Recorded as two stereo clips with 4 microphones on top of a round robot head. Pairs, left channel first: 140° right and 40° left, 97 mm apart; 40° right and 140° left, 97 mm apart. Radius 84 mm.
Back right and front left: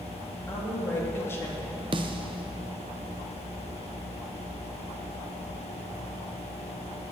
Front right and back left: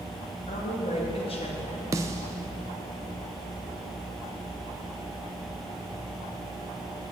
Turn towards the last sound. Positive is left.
turn(degrees=80)